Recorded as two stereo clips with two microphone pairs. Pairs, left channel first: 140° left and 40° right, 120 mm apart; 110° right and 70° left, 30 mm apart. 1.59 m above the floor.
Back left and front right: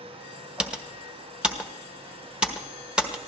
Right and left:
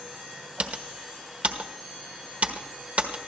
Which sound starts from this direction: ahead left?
Typing on a keyboard, at 0.6 s.